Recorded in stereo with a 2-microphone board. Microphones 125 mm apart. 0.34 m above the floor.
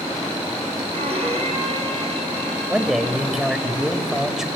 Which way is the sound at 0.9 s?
55° right (ahead or behind).